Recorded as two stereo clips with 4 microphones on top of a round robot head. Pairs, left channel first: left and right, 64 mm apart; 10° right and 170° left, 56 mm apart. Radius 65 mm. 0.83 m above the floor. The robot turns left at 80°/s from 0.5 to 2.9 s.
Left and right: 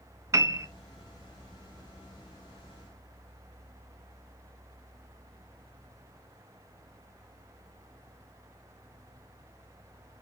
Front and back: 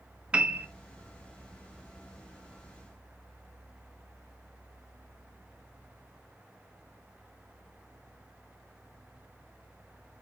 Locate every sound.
0.3 s a piano: 120° right, 1.1 m; by 0.7 s 135° right, 1.1 m